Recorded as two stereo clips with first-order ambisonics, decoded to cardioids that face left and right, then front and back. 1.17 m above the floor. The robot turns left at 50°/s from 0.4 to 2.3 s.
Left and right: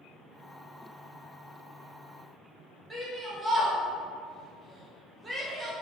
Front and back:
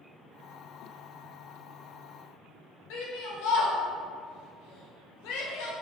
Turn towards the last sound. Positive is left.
turn(degrees=-10)